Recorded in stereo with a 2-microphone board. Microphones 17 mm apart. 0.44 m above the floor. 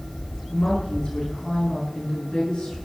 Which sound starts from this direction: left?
A woman speaking, at 0.5 s.